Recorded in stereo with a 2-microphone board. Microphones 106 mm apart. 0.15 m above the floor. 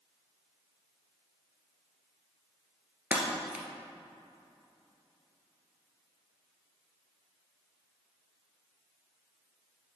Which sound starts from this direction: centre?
Breaking glass, at 3.1 s.